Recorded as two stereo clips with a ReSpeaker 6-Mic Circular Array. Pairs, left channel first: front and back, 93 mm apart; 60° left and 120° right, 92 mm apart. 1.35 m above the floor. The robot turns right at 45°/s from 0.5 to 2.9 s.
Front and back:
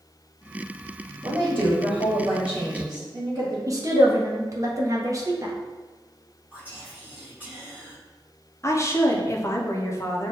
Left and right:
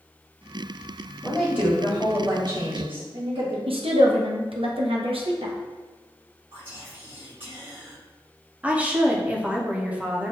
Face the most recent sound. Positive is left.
turn(degrees=-50)